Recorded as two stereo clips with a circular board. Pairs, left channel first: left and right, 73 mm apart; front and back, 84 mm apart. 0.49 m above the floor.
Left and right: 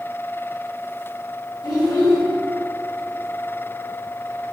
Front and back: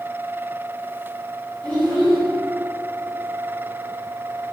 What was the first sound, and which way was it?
A child speaking, 80° left.